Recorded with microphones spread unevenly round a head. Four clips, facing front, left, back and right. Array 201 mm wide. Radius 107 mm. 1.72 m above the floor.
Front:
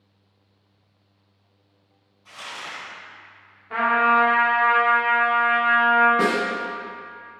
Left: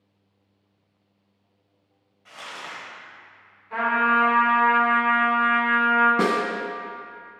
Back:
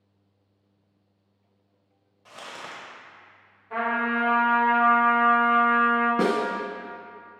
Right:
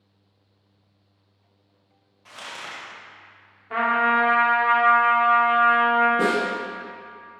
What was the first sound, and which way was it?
Crumpling, 155° right.